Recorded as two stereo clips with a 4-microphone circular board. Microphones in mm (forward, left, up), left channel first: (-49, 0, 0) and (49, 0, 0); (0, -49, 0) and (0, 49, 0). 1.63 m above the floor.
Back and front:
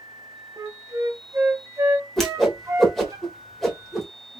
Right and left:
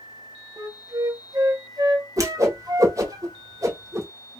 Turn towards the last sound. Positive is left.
turn(degrees=95)